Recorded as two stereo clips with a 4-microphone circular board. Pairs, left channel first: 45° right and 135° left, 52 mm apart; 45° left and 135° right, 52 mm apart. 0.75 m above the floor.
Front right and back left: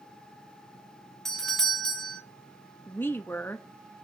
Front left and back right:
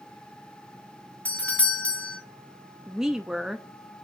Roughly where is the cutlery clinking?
No cutlery clinking in this recording.